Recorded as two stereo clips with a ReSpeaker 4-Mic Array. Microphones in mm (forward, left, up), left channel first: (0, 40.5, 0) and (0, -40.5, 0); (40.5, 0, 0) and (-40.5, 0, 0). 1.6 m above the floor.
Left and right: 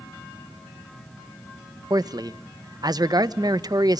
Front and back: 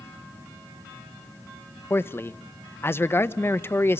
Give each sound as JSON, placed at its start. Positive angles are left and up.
{"t": 1.9, "sound": "a man speaking", "azimuth_deg": -60, "distance_m": 1.2}